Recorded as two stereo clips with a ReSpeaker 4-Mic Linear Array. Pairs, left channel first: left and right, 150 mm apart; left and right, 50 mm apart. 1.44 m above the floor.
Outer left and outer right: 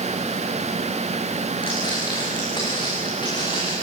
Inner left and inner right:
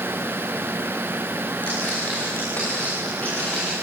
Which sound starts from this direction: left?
Footsteps, at 1.6 s.